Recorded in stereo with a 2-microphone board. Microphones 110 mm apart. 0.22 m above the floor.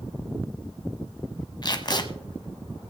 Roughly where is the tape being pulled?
Left.